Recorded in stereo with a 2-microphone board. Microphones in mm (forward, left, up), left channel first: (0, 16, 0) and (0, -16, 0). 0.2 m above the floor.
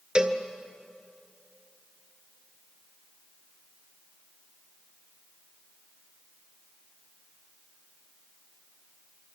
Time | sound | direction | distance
0.1 | a cowbell | 30° right (ahead or behind) | 1.7 m